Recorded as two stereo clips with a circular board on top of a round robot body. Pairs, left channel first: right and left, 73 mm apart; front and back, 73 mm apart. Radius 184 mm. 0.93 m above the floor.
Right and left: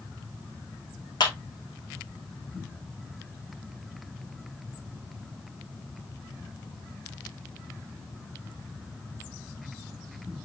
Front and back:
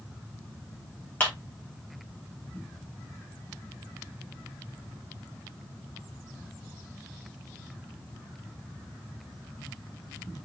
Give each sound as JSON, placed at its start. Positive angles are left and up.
{"t": 1.2, "sound": "a clap", "azimuth_deg": -65, "distance_m": 3.5}